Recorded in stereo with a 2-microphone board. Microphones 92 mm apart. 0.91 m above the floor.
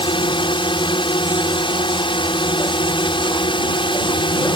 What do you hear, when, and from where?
0.0 s a drone: 65° left (ahead or behind)